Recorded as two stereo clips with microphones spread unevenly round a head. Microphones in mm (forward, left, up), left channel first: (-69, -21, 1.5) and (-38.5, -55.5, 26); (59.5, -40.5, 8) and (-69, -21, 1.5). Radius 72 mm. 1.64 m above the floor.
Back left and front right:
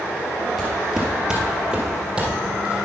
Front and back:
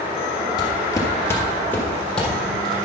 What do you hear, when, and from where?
0.6 s footsteps: 25° right, 1.9 m; by 2.8 s 95° right, 3.5 m